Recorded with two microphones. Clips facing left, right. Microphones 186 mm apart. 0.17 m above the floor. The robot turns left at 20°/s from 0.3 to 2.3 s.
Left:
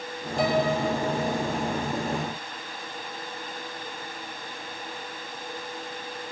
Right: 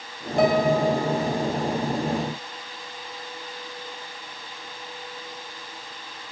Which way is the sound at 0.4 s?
60° right (ahead or behind).